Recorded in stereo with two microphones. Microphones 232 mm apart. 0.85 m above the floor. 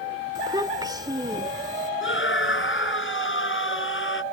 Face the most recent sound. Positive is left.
turn(degrees=60)  # may be behind; listen again after turning